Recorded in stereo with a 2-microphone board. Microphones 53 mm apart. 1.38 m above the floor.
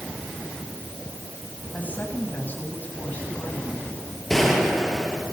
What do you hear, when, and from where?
1.7 s a woman speaking: 30° left (ahead or behind), 8 m
4.3 s a gunshot: centre (ahead or behind), 7 m